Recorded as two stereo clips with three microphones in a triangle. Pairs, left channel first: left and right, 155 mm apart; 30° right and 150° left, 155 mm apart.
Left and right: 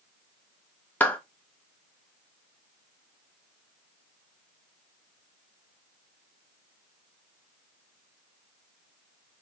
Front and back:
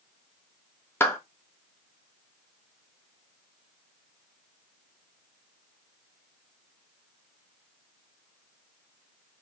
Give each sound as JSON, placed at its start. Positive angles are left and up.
{"t": 1.0, "sound": "a clap", "azimuth_deg": 25, "distance_m": 0.7}